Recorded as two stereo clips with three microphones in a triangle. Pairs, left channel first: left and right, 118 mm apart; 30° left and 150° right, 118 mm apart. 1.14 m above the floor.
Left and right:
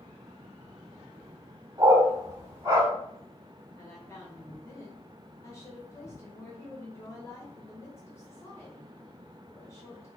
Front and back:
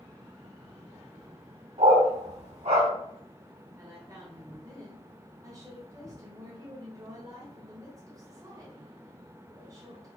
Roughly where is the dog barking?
Behind right.